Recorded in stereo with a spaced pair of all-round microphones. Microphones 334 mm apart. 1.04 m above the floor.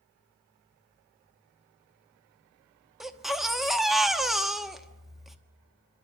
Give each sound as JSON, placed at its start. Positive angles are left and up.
{"t": 3.0, "sound": "a baby crying", "side_deg": 0, "distance_m": 1.1}